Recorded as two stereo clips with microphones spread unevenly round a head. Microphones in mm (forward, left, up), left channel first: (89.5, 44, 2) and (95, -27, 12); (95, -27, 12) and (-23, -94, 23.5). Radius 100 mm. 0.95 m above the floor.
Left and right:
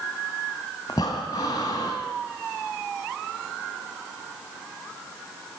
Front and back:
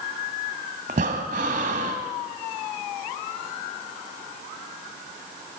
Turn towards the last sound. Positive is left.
turn(degrees=160)